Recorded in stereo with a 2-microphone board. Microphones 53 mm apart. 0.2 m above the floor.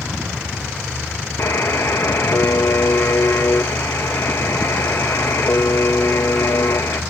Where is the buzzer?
55° left (ahead or behind), 0.9 m.